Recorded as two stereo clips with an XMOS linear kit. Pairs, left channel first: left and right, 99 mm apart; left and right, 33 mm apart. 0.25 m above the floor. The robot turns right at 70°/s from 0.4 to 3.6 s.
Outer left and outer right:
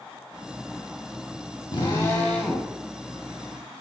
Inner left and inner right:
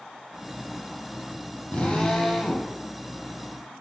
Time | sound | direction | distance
1.7 | a drill | 120° left | 4 m